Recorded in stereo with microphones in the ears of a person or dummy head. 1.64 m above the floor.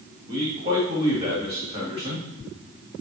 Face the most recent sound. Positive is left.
turn(degrees=-30)  # may be behind; listen again after turning